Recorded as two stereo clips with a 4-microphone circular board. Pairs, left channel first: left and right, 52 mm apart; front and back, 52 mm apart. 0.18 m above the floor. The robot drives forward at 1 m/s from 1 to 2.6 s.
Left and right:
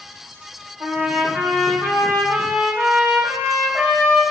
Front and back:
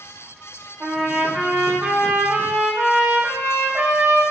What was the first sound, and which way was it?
A trumpet, 95° right.